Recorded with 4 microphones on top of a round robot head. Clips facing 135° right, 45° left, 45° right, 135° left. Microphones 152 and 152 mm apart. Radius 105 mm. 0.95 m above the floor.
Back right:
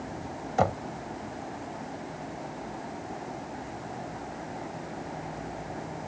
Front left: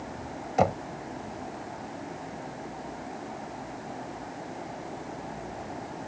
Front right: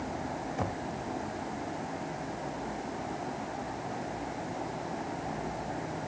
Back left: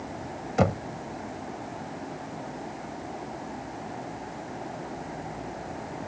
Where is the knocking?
125° left.